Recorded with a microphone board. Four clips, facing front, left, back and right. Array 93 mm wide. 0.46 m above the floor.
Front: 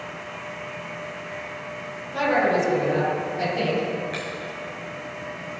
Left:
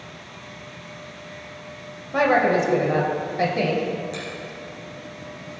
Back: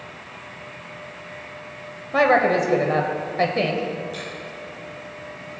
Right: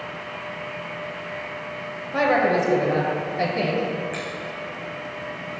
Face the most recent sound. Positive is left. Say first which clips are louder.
# right 2 dB, front 2 dB
turn(degrees=-35)